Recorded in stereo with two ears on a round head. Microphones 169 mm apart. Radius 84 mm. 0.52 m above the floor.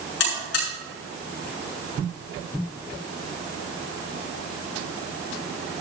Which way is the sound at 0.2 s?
65° left (ahead or behind).